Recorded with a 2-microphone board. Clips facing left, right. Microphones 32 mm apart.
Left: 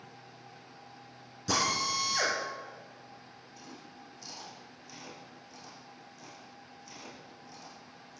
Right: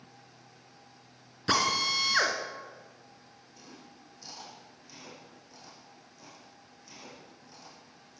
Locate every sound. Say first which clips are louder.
1.5 s a drill: right 3 dB; 50° right (ahead or behind), 2.5 m
3.6 s chewing: left 2 dB; 15° right (ahead or behind), 7 m